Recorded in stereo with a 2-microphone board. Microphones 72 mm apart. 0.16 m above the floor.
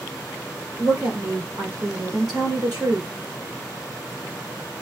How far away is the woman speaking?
About 2.5 m.